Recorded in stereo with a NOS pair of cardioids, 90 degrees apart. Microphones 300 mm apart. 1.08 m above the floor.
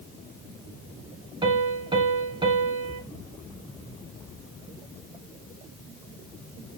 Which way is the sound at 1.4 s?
15° right.